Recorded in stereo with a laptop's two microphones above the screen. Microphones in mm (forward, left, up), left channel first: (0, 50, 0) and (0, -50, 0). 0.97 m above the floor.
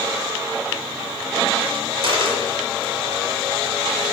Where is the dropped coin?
60° right (ahead or behind), 1.6 m.